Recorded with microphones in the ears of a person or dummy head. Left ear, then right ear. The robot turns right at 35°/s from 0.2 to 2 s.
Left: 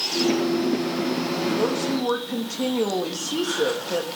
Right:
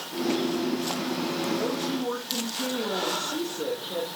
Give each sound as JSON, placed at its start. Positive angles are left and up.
{"t": 1.6, "sound": "a woman speaking", "side_deg": 50, "distance_m": 1.5}